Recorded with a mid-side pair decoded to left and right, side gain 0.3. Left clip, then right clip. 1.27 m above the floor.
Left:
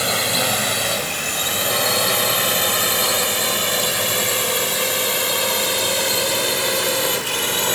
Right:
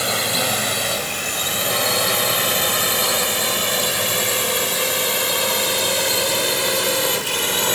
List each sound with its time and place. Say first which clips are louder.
0.0 s a drone: left 1 dB; 5° left; by 7.8 s 15° right